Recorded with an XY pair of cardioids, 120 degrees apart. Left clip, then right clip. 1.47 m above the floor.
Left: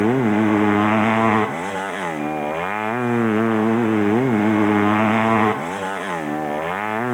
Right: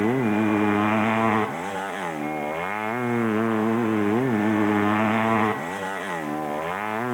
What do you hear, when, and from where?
0.0 s a motorcycle: 25° left